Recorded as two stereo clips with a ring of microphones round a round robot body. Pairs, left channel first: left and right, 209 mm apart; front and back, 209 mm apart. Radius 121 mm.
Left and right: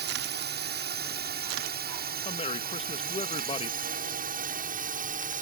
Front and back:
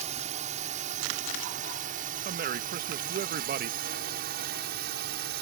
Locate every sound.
0.0 s a drone: 120° right; by 5.4 s 135° right
2.2 s a man speaking: 145° left